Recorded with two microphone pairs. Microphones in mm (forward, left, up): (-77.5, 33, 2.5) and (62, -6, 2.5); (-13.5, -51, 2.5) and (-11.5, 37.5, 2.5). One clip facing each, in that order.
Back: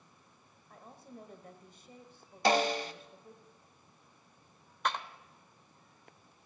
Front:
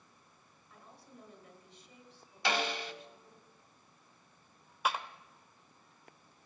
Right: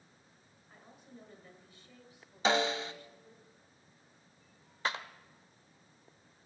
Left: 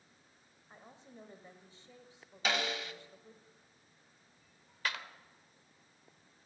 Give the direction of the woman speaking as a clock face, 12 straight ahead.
7 o'clock.